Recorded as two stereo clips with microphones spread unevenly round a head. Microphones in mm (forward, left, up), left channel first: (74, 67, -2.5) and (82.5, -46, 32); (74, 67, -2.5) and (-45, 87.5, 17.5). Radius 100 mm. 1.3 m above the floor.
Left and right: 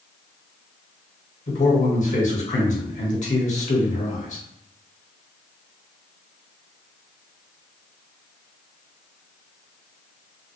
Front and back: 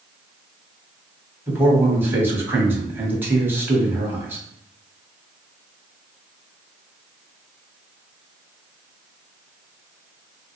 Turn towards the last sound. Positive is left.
turn(degrees=95)